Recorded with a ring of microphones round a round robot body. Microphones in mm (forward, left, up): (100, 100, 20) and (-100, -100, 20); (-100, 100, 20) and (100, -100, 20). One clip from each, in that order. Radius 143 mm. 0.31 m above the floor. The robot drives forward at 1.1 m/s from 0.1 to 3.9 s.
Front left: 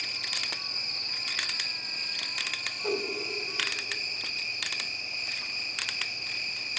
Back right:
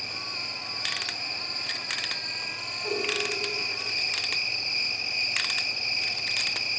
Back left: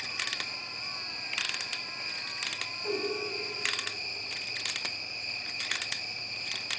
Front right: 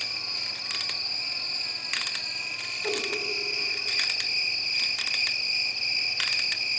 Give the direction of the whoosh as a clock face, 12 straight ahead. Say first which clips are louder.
Back right 2 dB, front right 3 dB; 12 o'clock.